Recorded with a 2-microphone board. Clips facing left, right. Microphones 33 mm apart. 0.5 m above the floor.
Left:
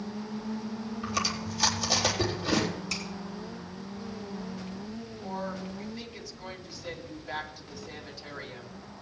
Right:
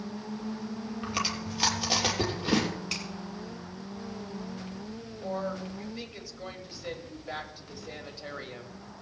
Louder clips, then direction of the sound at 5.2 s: Right 3 dB; 25° right (ahead or behind).